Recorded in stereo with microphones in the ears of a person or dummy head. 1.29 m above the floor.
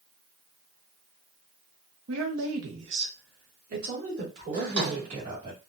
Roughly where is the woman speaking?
Right.